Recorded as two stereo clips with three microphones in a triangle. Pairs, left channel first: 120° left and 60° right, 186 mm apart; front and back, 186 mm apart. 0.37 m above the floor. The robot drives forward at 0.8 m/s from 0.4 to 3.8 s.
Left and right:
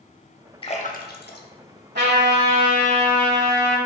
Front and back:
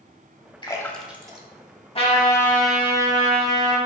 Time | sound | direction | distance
0.6 | a splash | 60° left | 0.7 m
1.9 | a trumpet | 55° right | 1.0 m